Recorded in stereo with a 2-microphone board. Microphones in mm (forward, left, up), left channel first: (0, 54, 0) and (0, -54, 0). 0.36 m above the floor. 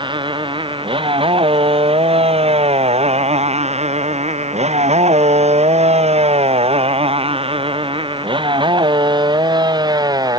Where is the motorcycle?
50° right (ahead or behind); by 10.4 s 35° right (ahead or behind).